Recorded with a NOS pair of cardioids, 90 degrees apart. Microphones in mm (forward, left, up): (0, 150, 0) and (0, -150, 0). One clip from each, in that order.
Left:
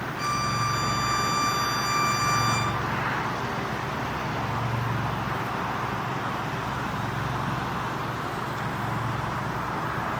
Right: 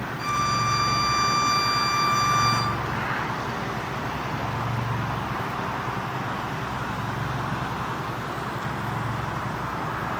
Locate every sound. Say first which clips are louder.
0.2 s a violin: right 3 dB; 40° left, 8.5 m